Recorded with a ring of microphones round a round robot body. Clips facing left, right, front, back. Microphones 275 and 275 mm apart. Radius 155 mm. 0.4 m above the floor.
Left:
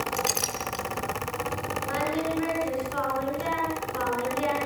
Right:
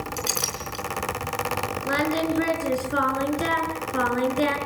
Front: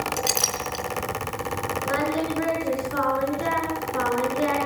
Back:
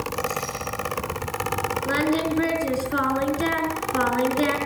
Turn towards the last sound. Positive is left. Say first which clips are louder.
# right 5 dB, back 3 dB
turn(degrees=-130)